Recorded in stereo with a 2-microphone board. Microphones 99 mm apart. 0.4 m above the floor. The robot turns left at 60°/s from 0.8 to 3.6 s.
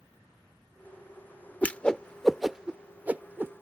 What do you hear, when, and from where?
1.6 s a whoosh: 15° left (ahead or behind); by 3.6 s 20° right (ahead or behind)